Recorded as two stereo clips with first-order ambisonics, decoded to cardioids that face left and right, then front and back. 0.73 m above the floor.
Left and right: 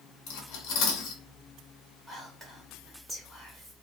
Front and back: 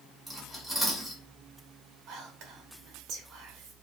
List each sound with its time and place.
0.3 s cutlery clinking: 85° left, 0.8 m
2.1 s whispering: 175° left, 0.5 m